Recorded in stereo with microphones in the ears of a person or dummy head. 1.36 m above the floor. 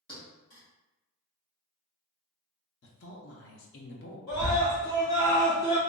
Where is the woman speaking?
55° left (ahead or behind), 0.5 m.